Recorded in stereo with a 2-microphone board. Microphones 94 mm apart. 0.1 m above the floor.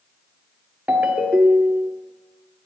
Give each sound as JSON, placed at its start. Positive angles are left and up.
{"t": 0.9, "sound": "a ringtone", "side_deg": -15, "distance_m": 1.2}